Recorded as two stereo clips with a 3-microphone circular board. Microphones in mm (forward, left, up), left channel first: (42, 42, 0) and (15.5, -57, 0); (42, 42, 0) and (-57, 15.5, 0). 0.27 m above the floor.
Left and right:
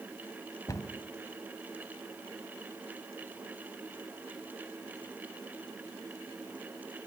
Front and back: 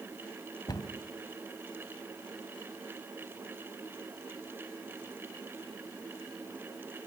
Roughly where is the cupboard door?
Ahead left.